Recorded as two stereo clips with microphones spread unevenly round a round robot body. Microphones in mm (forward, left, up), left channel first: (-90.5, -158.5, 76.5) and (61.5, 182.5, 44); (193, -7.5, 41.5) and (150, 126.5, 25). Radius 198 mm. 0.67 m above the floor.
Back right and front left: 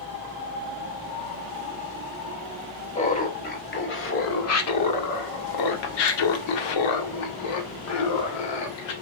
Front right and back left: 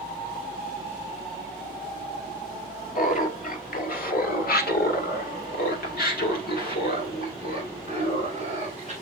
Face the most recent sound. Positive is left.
turn(degrees=-135)